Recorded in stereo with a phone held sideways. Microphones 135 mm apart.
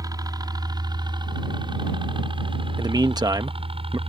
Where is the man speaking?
30° right (ahead or behind).